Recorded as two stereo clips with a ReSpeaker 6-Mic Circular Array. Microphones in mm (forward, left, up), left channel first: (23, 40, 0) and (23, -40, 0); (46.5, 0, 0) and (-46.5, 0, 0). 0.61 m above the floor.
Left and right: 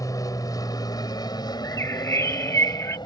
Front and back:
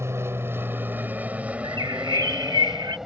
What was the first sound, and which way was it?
An aircraft, 125° left.